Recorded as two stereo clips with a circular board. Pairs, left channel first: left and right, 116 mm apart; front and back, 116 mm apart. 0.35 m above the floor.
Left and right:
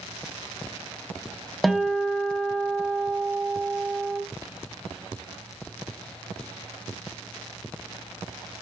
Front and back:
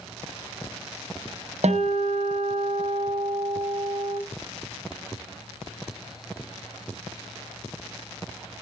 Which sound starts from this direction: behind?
A guitar, at 1.6 s.